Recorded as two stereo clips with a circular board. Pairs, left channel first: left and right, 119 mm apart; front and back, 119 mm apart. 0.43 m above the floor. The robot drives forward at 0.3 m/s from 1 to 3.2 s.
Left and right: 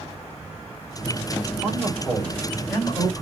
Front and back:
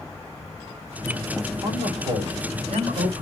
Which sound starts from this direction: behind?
A man speaking, at 1.6 s.